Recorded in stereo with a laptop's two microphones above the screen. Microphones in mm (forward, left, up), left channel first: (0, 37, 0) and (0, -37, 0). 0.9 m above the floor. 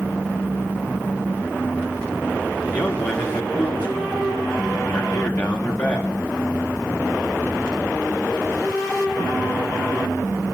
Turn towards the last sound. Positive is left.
turn(degrees=20)  # may be behind; listen again after turning